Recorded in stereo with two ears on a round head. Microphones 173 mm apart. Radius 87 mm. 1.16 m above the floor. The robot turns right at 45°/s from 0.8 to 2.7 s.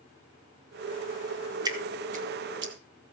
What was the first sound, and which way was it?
Dripping, 20° right (ahead or behind).